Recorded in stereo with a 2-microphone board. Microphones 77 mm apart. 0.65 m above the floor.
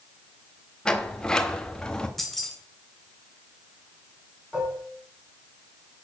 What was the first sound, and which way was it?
A sliding door, 10° left (ahead or behind).